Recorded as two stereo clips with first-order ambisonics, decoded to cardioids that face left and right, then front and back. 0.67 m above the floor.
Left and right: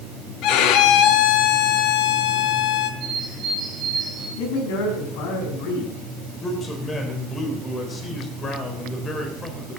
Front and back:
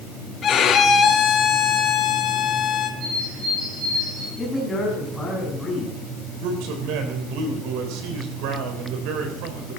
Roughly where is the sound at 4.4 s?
Left.